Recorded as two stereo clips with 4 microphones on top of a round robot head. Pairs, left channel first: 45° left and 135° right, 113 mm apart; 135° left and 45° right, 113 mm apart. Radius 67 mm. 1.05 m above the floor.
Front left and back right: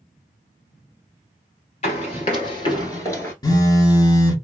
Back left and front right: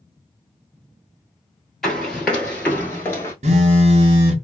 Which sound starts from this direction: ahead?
A phone buzzing, at 3.4 s.